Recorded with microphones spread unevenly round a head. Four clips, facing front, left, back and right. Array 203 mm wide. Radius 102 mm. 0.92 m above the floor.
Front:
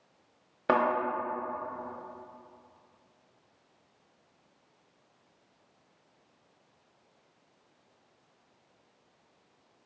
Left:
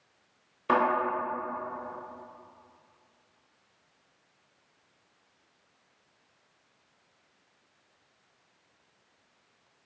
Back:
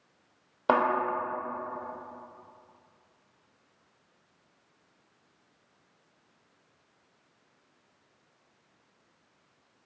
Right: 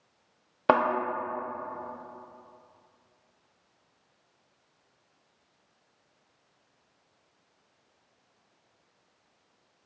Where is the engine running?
I don't hear an engine running.